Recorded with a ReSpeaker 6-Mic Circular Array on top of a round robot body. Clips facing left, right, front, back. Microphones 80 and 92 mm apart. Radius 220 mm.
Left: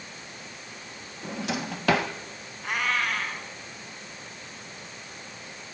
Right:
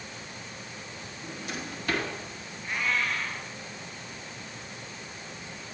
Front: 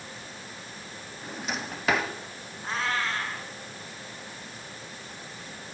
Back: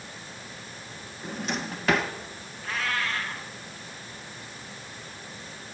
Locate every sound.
1.2 s a drawer: 90° left, 1.5 m
2.6 s a cat meowing: 65° left, 5 m